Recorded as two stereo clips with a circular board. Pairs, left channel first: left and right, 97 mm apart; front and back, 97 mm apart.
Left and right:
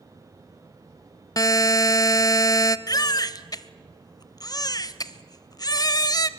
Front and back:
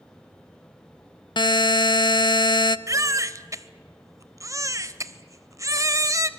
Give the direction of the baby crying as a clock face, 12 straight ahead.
8 o'clock.